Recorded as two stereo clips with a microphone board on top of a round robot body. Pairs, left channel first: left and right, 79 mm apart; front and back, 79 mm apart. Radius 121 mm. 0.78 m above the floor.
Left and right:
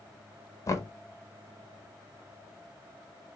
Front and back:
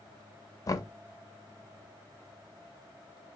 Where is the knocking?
45° left, 0.7 m.